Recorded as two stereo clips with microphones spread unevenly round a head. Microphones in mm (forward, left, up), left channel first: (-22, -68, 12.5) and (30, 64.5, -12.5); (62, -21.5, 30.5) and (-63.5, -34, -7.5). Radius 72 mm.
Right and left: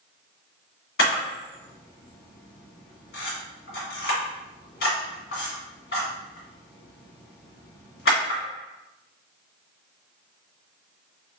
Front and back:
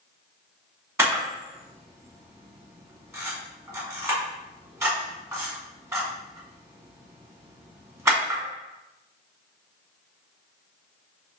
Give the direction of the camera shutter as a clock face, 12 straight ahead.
3 o'clock.